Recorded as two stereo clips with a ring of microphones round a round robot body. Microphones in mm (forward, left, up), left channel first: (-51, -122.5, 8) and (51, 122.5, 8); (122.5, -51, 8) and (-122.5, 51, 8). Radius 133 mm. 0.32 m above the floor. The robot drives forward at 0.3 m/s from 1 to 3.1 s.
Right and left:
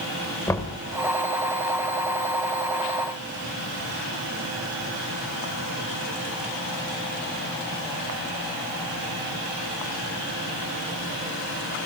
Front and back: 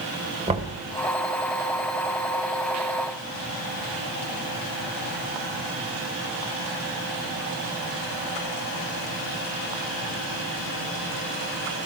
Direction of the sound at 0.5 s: 175° right.